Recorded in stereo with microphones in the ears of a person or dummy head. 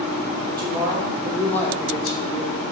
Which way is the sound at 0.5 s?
25° right (ahead or behind).